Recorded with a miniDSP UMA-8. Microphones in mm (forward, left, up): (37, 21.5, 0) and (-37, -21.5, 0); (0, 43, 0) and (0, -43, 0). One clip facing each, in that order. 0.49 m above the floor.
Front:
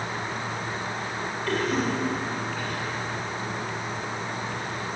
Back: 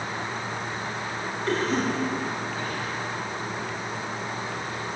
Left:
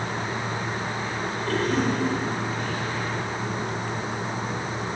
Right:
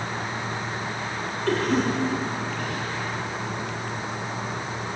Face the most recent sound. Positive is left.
turn(degrees=-90)